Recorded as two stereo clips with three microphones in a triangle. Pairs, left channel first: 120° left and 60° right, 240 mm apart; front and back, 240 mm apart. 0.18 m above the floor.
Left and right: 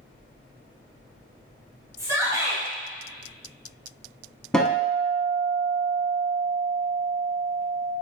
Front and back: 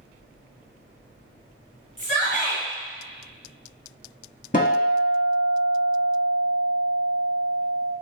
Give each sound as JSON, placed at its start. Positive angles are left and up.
{"t": 2.0, "sound": "a shout", "azimuth_deg": 5, "distance_m": 1.4}
{"t": 4.5, "sound": "a guitar", "azimuth_deg": 35, "distance_m": 0.6}